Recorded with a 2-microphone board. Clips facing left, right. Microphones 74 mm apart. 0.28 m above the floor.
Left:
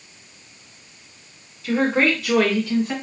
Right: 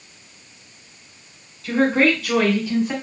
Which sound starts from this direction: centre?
A woman speaking, at 1.6 s.